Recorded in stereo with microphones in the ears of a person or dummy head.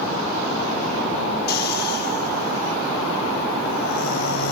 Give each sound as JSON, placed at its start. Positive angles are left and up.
{"t": 1.5, "sound": "snoring", "side_deg": 55, "distance_m": 0.9}